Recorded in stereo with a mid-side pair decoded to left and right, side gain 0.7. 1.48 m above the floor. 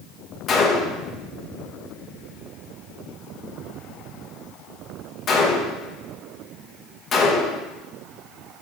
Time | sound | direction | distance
0.5 | a gunshot | 35° left | 1.3 m